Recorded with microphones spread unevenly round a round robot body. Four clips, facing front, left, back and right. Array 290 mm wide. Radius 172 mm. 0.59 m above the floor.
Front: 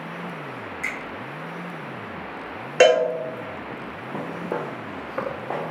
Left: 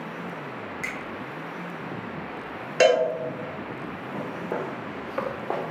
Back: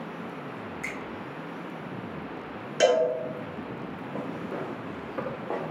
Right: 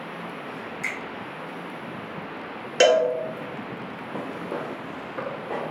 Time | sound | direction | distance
0.8 | a finger snap | 85° left | 1.2 m
2.8 | a cowbell | 10° right | 0.9 m
4.1 | footsteps | 5° right | 1.3 m